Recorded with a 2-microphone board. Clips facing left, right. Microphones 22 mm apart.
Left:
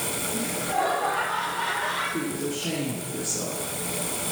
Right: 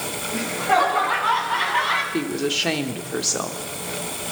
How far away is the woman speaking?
About 3 m.